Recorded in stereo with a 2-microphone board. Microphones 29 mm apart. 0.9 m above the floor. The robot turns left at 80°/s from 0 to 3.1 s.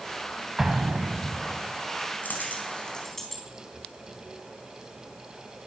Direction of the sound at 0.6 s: 20° right.